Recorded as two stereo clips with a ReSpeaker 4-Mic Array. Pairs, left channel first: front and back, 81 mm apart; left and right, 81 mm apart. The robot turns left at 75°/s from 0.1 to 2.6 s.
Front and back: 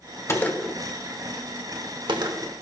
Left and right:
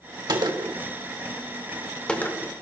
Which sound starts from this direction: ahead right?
A gunshot, at 0.3 s.